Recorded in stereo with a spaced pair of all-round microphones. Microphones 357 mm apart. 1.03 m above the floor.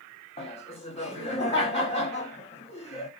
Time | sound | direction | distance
0.4 | laughter | 15° left (ahead or behind) | 0.8 m